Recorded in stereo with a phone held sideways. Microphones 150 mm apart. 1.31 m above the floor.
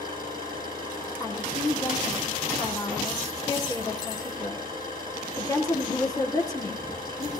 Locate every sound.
0.0 s an engine running: 30° right (ahead or behind), 8 m
1.2 s a woman speaking: 25° left (ahead or behind), 3 m